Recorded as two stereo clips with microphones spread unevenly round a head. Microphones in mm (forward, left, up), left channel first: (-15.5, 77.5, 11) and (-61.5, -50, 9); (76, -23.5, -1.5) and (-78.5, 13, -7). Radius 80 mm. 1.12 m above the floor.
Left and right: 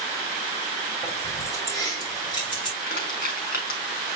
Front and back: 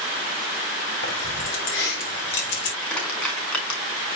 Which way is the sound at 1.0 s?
10° right.